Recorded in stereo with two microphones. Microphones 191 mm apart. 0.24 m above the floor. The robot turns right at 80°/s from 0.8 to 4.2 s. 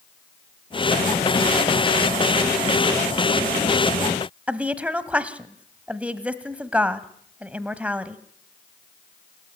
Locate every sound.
4.5 s a woman speaking: 5° right (ahead or behind), 1.2 m